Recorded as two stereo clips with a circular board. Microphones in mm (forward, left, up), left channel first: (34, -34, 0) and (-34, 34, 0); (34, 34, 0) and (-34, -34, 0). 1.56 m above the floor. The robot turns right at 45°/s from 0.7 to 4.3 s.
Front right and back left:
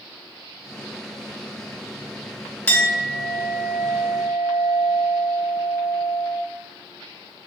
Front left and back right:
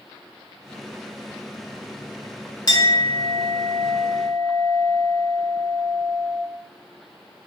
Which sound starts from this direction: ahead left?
A clink, at 2.7 s.